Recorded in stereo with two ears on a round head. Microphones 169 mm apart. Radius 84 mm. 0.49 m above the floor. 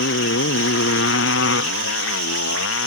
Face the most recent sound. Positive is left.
turn(degrees=80)